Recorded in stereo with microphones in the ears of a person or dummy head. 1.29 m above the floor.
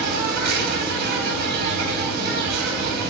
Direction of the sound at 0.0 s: 55° right (ahead or behind).